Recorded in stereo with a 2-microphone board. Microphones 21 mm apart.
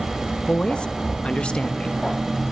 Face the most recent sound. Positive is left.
turn(degrees=55)  # may be behind; listen again after turning